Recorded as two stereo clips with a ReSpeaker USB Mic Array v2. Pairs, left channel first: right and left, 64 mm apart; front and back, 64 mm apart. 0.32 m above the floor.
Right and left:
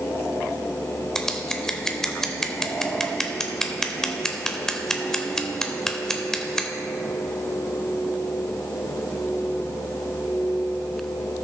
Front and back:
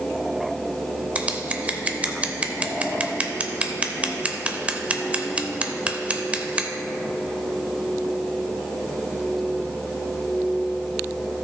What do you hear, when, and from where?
1.1 s scissors: 160° right, 0.7 m